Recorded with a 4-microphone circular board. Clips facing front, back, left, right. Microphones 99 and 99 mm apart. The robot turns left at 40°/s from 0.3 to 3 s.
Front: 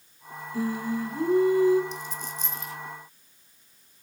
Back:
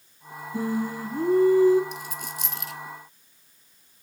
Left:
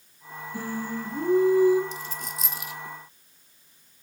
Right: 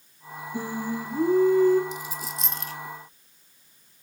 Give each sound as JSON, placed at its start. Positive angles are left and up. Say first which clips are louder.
{"t": 0.5, "sound": "singing", "louder": "back 1 dB, right 2 dB", "azimuth_deg": -145, "distance_m": 1.3}
{"t": 1.9, "sound": "a dropped coin", "louder": "even, right 2 dB", "azimuth_deg": -160, "distance_m": 1.3}